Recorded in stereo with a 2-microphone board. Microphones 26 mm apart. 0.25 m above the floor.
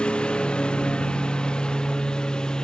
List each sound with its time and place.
0.0 s a lawn mower: 40° left (ahead or behind); by 2.6 s 30° left (ahead or behind)